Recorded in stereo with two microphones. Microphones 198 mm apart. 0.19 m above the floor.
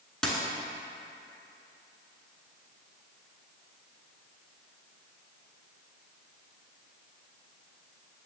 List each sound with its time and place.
0.2 s a dropped coin: 5° left (ahead or behind), 0.9 m